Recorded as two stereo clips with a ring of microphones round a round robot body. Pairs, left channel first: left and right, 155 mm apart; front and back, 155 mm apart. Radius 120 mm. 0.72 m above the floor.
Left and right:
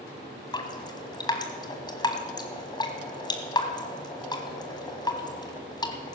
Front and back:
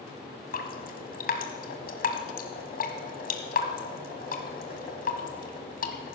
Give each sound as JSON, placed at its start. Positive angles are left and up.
{"t": 0.5, "sound": "dripping", "azimuth_deg": 25, "distance_m": 1.6}